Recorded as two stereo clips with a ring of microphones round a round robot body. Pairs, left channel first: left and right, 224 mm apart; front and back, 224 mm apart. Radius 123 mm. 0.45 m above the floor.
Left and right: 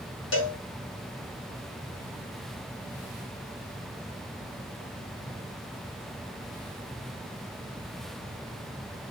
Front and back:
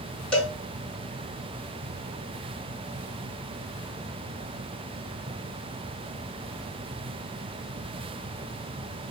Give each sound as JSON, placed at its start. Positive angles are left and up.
{"t": 0.3, "sound": "a cowbell", "azimuth_deg": 85, "distance_m": 1.2}